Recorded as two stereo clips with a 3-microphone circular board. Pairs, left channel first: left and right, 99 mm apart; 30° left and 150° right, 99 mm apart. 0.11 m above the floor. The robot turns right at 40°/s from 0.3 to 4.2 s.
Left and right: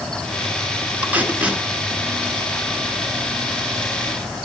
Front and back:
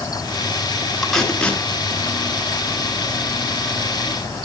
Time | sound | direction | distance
1.0 | tape being pulled | 50° right | 1.8 m